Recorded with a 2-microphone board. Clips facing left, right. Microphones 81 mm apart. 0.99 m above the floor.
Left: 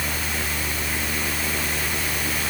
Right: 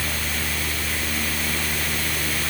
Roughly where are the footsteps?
I don't hear footsteps.